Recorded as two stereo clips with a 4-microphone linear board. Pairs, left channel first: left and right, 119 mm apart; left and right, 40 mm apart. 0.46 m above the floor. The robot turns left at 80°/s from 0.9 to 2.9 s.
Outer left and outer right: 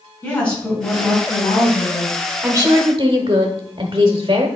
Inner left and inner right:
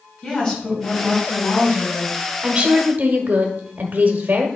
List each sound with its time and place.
0.2 s a woman speaking: 170° left, 4.5 m; by 2.2 s 65° left, 4.5 m
2.4 s a woman speaking: 25° right, 1.2 m; by 4.5 s 60° right, 1.2 m